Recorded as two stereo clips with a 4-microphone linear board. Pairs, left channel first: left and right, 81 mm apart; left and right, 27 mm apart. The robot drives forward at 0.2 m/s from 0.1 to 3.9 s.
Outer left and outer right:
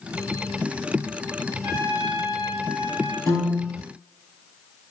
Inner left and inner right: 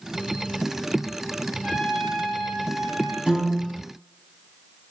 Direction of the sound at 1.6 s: 10° right (ahead or behind).